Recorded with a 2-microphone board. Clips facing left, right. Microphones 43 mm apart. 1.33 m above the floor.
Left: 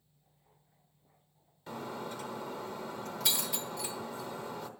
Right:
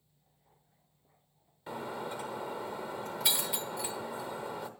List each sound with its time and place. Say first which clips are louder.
1.7 s breaking glass: right 2 dB; 15° right (ahead or behind), 1.1 m